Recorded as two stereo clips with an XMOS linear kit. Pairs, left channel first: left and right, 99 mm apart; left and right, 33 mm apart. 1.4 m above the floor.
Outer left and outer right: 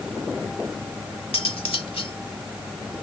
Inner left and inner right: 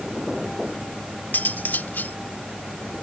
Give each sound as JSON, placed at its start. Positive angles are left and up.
{"t": 1.3, "sound": "cutlery clinking", "side_deg": 70}